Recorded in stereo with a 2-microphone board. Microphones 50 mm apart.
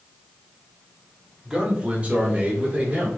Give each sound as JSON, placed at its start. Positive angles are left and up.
{"t": 1.4, "sound": "a man speaking", "side_deg": -15, "distance_m": 1.1}